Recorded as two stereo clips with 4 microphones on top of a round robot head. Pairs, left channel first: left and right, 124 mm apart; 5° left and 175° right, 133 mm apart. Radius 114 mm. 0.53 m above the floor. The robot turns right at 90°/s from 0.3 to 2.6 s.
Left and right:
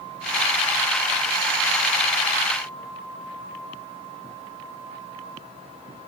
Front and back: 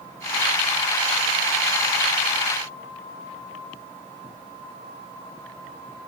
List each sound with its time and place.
Only background noise.